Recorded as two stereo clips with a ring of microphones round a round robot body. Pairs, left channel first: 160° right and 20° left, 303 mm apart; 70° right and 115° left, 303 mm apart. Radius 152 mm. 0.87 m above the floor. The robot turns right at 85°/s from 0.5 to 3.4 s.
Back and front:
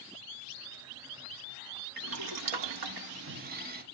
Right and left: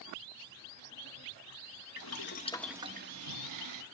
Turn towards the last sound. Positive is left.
turn(degrees=85)